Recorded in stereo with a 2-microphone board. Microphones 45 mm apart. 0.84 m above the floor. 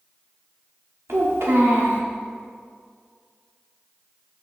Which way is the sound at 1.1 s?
80° right.